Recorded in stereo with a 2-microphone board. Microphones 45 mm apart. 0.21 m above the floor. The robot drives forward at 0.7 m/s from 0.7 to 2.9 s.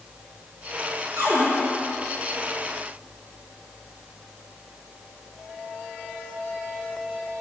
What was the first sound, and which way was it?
A cupboard door, 65° right (ahead or behind).